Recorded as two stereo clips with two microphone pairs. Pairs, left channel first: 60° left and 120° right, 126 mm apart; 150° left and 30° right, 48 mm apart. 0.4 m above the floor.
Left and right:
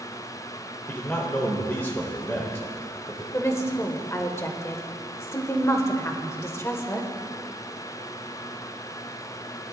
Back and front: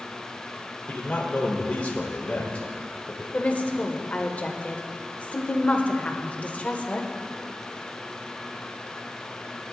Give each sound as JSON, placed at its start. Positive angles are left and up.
{"t": 0.9, "sound": "a man speaking", "azimuth_deg": 120, "distance_m": 1.3}
{"t": 3.3, "sound": "a woman speaking", "azimuth_deg": 115, "distance_m": 1.1}